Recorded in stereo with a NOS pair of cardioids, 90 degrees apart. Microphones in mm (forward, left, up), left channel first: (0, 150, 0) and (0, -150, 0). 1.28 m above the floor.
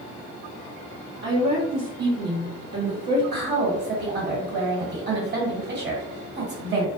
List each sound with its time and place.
1.2 s a woman speaking: 65° right, 1.1 m
3.3 s a woman speaking: 35° right, 1.5 m